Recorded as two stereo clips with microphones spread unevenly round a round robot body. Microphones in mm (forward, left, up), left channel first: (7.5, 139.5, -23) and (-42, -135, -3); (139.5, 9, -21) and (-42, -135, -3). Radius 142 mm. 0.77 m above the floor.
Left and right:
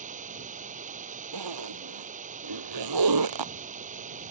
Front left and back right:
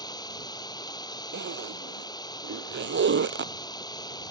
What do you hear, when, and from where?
0.0 s running water: 35° right
1.3 s a zipper: 105° right